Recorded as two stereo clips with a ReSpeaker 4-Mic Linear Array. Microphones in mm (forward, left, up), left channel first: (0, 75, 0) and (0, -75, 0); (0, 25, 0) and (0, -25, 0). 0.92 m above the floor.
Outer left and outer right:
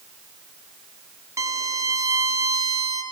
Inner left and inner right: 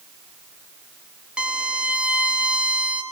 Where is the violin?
20° right (ahead or behind), 0.8 m.